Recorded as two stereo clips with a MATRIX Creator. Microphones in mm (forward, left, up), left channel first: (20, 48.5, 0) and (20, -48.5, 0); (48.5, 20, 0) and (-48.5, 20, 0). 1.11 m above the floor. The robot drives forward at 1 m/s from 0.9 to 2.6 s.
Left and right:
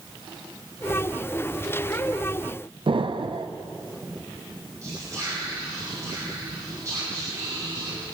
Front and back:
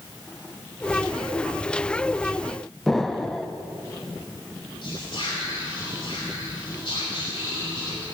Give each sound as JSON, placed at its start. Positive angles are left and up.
{"t": 2.9, "sound": "an explosion", "azimuth_deg": -85, "distance_m": 0.6}
{"t": 4.8, "sound": "whispering", "azimuth_deg": -35, "distance_m": 2.5}